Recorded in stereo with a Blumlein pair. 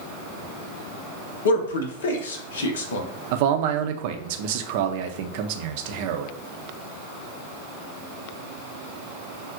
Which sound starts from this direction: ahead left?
A man speaking, at 1.4 s.